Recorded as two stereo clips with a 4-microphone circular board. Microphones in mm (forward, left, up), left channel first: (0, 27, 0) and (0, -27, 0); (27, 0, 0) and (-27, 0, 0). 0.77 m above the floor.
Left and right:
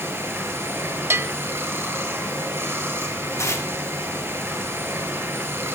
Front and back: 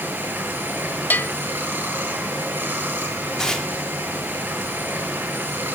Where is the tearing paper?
75° left, 1.9 m.